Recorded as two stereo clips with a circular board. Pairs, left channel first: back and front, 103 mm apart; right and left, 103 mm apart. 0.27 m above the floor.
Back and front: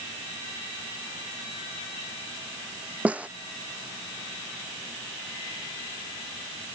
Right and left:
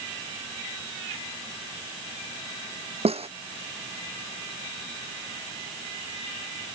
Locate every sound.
3.0 s a snare drum: 75° left